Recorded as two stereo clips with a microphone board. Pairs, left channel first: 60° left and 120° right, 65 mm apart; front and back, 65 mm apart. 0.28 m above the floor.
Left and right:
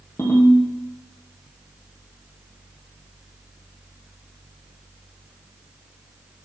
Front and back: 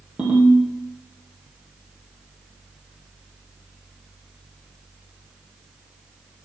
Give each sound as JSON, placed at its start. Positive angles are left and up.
{"t": 0.2, "sound": "a ringtone", "azimuth_deg": 110, "distance_m": 3.0}